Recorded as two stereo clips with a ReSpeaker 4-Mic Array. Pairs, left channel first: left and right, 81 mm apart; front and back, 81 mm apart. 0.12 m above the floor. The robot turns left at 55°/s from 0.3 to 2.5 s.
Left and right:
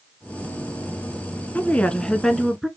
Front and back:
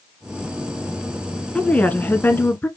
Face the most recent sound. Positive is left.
turn(degrees=-5)